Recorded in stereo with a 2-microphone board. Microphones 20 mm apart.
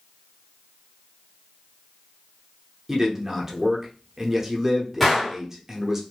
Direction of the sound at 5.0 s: 5° left (ahead or behind).